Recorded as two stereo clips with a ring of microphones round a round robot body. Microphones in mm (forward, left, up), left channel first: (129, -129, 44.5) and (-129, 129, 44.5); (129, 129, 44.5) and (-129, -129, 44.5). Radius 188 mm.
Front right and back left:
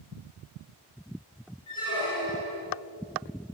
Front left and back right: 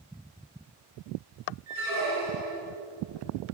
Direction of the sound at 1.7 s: 125° right.